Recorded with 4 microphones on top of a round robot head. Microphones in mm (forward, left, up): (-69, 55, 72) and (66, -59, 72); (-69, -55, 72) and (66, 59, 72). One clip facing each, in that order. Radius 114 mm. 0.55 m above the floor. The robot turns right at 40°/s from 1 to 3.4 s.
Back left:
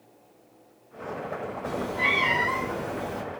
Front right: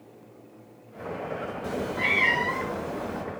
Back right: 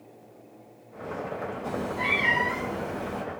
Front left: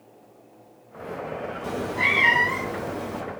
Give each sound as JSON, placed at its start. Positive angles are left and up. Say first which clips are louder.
{"t": 1.6, "sound": "a cat meowing", "louder": "even, front left 2 dB", "azimuth_deg": 20, "distance_m": 0.8}